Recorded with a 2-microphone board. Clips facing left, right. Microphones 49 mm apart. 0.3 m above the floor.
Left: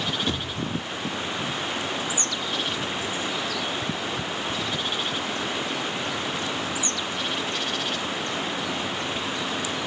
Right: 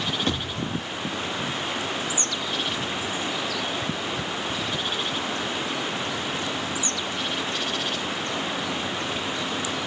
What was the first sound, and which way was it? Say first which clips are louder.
A thud: right 1 dB; 55° right (ahead or behind).